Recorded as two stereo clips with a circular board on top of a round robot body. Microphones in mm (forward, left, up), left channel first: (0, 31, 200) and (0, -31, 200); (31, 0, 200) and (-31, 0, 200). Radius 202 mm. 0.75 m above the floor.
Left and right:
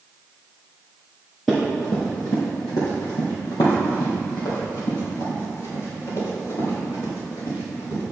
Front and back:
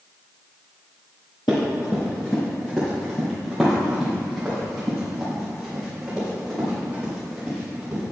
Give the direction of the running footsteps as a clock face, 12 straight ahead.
12 o'clock.